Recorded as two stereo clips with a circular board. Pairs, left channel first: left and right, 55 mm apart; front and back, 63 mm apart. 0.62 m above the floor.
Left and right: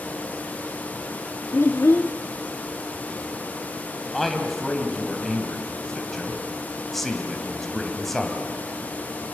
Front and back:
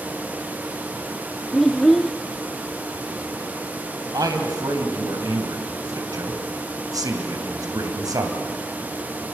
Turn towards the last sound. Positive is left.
turn(degrees=175)